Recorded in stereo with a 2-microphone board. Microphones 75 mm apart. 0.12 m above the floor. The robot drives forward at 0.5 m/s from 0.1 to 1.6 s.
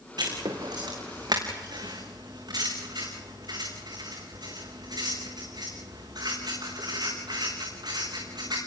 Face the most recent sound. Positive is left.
turn(degrees=-65)  # may be behind; listen again after turning